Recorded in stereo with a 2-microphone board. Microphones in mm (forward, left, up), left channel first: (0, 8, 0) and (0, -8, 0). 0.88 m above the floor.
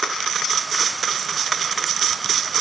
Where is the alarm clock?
No alarm clock in this recording.